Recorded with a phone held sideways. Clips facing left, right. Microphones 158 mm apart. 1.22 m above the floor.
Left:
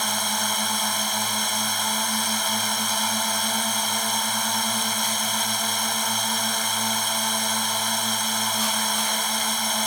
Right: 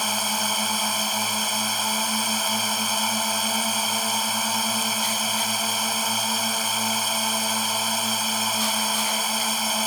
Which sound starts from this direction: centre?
A drone, at 0.0 s.